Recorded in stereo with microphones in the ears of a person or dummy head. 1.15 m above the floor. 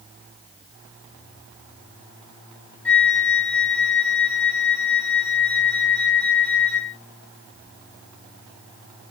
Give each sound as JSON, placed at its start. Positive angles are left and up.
{"t": 2.9, "sound": "a flute", "side_deg": 5, "distance_m": 0.6}